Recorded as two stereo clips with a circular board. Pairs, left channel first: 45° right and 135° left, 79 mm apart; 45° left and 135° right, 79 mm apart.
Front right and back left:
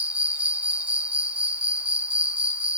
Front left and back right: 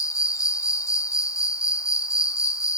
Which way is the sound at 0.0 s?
70° left.